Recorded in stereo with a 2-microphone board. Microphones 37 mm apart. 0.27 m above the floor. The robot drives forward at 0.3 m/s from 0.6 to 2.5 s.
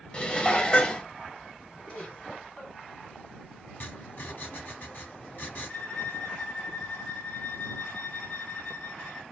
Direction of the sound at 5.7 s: 15° left (ahead or behind).